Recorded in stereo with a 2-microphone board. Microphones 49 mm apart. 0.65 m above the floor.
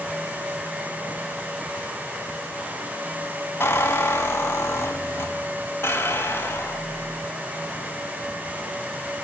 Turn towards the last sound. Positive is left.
turn(degrees=55)  # may be behind; listen again after turning